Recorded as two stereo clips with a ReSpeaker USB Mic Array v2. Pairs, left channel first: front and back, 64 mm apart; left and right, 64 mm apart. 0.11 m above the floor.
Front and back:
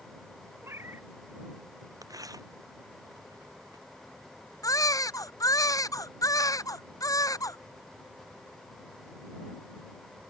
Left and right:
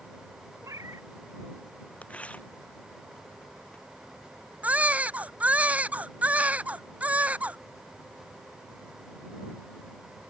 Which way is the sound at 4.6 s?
25° right.